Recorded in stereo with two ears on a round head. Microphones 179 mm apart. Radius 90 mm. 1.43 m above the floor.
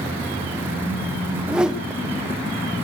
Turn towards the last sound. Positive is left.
turn(degrees=-5)  # may be behind; listen again after turning